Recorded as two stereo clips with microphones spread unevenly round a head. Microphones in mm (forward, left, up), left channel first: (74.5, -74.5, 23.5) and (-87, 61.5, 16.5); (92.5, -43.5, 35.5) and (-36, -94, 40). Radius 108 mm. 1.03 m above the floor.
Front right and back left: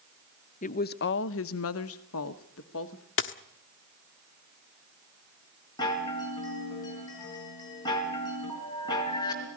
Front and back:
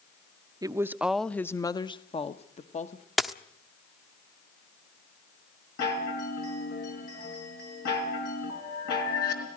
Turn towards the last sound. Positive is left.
turn(degrees=30)